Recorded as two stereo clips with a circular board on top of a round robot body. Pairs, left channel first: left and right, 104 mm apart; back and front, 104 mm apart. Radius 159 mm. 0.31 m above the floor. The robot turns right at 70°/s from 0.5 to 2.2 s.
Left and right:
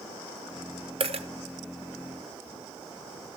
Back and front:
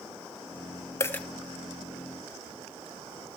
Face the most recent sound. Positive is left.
turn(degrees=-35)